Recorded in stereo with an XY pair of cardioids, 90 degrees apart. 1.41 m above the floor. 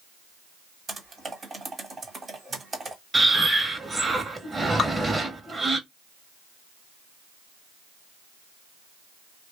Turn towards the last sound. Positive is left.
turn(degrees=50)